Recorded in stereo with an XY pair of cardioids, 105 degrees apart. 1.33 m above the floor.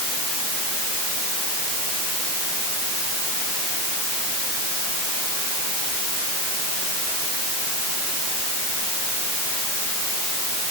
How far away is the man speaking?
No man speaking in this recording.